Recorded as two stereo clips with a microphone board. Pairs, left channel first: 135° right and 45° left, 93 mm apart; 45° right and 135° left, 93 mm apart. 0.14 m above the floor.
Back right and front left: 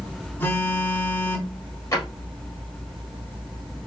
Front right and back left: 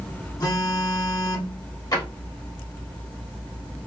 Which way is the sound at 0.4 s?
75° right.